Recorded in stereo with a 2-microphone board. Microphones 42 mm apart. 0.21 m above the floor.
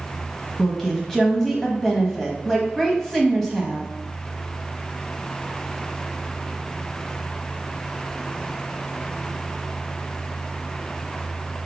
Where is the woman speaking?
10° left (ahead or behind), 0.9 m.